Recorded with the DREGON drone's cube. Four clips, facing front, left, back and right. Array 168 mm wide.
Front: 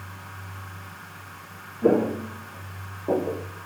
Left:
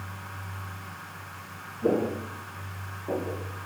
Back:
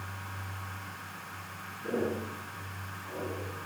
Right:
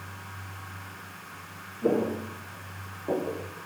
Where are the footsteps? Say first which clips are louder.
Even, front 11 dB; straight ahead, 4.5 m; by 3.5 s 15° right, 3.5 m.